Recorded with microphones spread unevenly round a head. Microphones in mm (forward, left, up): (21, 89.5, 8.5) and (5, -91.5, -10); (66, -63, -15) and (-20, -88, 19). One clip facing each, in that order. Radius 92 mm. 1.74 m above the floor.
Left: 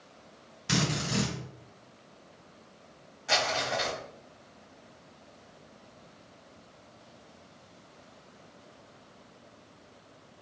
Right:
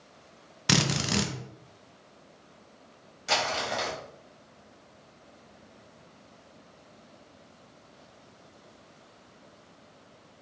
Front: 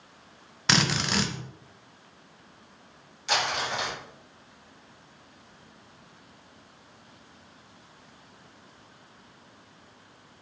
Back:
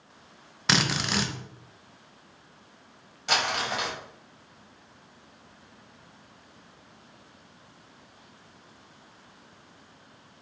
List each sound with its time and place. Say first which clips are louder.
0.7 s a drill: right 2 dB, front 1 dB; 80° right, 0.6 m
3.3 s crumpling: even, even; 140° right, 1.7 m